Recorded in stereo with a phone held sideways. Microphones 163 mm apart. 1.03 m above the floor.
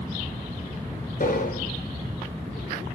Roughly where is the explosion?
Left.